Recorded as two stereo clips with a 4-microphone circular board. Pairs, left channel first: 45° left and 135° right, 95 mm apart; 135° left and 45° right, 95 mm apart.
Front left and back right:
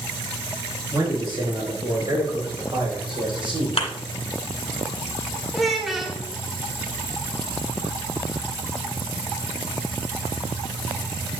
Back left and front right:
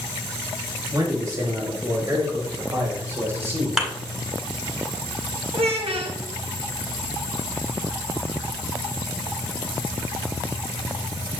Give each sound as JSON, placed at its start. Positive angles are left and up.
{"t": 0.9, "sound": "a man speaking", "azimuth_deg": -100, "distance_m": 5.0}
{"t": 3.8, "sound": "a thud", "azimuth_deg": 35, "distance_m": 1.7}
{"t": 5.5, "sound": "a child speaking", "azimuth_deg": -45, "distance_m": 1.8}